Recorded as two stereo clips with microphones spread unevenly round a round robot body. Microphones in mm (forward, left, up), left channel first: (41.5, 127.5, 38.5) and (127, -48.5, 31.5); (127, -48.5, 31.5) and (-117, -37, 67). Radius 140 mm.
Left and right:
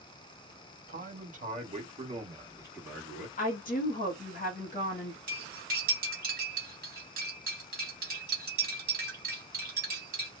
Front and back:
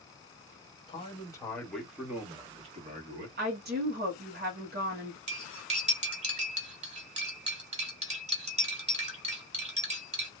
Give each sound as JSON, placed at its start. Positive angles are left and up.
{"t": 0.9, "sound": "a man speaking", "azimuth_deg": -55, "distance_m": 1.5}
{"t": 3.4, "sound": "a woman speaking", "azimuth_deg": 135, "distance_m": 0.9}
{"t": 5.3, "sound": "cutlery clinking", "azimuth_deg": -120, "distance_m": 1.3}